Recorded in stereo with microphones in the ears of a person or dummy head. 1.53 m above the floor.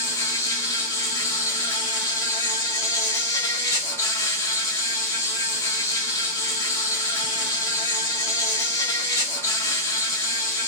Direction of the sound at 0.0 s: 15° left (ahead or behind).